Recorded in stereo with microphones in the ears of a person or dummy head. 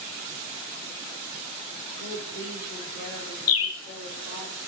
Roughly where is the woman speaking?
Left.